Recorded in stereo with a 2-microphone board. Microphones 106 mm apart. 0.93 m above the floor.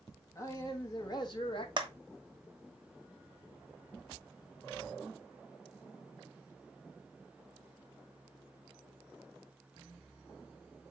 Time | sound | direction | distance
0.3 | a man speaking | 25° left (ahead or behind) | 1.4 m
1.8 | a clap | 45° right (ahead or behind) | 0.8 m